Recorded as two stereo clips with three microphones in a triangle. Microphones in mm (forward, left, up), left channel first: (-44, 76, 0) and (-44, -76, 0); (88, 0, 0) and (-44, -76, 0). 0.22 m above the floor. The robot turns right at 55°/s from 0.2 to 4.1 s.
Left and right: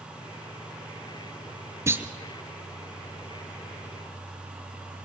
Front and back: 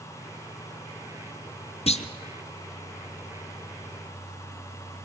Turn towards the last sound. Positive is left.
turn(degrees=105)